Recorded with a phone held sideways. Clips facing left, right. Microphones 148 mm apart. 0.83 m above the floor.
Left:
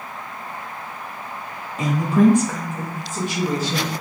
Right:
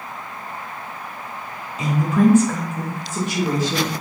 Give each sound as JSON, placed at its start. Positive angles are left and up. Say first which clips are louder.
{"t": 1.8, "sound": "a woman speaking", "louder": "left 1 dB", "side_deg": 50, "distance_m": 1.4}